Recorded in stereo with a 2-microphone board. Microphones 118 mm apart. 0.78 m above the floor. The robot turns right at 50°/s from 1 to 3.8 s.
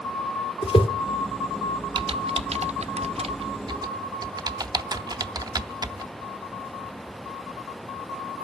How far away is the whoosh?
About 2.0 m.